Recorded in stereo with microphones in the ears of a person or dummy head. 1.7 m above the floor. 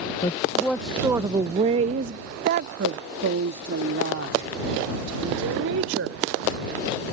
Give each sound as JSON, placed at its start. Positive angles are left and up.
{"t": 0.2, "sound": "a woman speaking", "side_deg": 25}